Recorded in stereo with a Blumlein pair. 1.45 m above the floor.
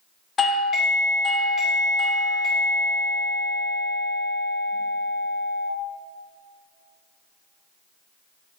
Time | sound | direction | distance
0.4 | a doorbell | 20° left | 0.6 m